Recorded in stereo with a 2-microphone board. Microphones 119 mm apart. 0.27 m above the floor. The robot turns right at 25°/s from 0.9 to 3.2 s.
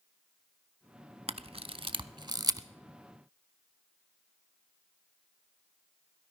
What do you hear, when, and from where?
1.3 s a camera shutter: 65° right (ahead or behind), 0.6 m; by 2.7 s 30° right (ahead or behind), 0.6 m